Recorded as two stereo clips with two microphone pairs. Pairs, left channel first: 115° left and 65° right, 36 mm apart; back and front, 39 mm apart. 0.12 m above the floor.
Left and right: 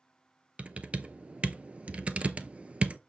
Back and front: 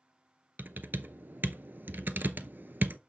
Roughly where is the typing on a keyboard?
Ahead.